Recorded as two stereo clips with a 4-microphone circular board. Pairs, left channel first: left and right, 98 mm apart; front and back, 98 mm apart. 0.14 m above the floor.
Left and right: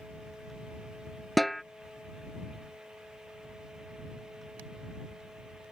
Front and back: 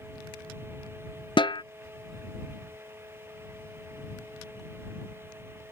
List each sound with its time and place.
1.4 s a snare drum: straight ahead